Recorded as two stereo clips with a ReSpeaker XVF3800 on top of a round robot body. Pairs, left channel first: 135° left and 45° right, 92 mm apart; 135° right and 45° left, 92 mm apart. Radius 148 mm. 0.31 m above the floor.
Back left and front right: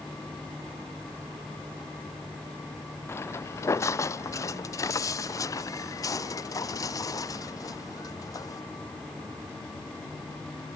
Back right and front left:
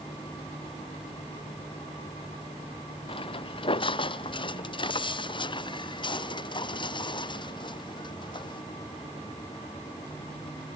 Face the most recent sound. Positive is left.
turn(degrees=-170)